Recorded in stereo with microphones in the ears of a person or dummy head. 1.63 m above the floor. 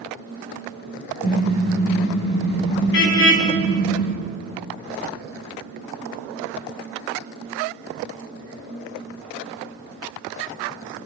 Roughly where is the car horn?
Left.